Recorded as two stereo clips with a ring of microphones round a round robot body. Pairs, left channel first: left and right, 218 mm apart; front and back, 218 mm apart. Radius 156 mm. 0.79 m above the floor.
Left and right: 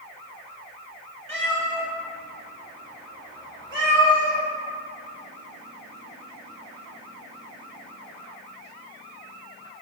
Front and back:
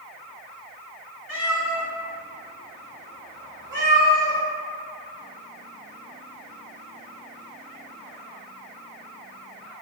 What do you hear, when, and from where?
1.3 s a cat meowing: 30° right, 1.0 m; by 4.4 s 60° right, 2.5 m